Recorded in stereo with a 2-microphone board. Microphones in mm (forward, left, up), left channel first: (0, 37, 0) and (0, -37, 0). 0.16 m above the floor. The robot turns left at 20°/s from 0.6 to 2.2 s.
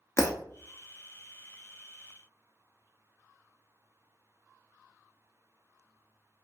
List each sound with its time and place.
0.2 s breaking glass: 40° left (ahead or behind), 0.7 m